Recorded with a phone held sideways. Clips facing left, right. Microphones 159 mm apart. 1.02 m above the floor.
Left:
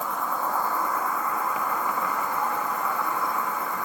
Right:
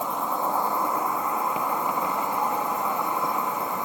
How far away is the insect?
About 0.8 m.